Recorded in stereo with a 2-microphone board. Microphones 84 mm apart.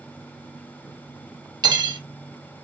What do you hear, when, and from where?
1.6 s cutlery clinking: 55° right (ahead or behind), 0.6 m